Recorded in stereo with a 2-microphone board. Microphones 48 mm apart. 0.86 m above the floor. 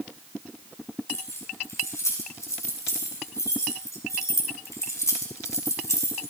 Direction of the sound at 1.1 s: 80° left.